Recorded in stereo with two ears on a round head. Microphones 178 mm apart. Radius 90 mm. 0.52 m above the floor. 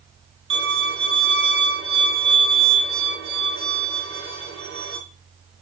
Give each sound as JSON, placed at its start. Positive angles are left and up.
{"t": 0.5, "sound": "a violin", "side_deg": -60, "distance_m": 8.0}